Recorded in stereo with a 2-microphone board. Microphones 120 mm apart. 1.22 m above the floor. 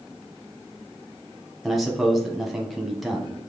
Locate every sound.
1.6 s a man speaking: centre (ahead or behind), 0.9 m